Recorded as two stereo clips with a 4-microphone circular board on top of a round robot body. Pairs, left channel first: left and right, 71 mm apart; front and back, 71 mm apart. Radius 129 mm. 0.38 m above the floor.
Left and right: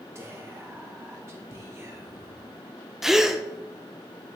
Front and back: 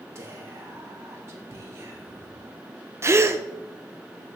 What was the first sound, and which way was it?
Whispering, 135° right.